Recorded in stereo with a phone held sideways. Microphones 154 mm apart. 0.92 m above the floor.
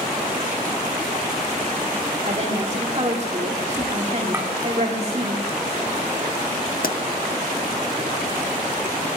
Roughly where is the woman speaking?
Right.